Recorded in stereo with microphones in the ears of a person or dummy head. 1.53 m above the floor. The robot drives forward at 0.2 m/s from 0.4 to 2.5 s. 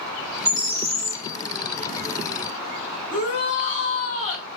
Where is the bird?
45° left (ahead or behind), 0.8 m; by 1.2 s 35° left (ahead or behind), 0.9 m.